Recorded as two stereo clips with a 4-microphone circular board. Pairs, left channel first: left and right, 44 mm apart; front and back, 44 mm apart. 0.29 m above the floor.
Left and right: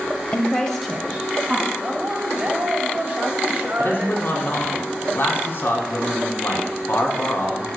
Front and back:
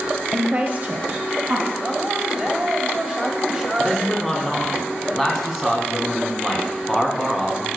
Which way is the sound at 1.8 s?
120° right.